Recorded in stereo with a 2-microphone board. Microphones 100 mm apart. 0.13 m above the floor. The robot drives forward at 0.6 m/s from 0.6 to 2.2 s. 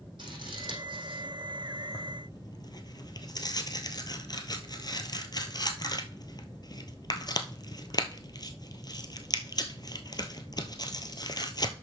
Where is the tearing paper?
40° left (ahead or behind), 1.1 m; by 11.7 s 45° left (ahead or behind), 1.0 m.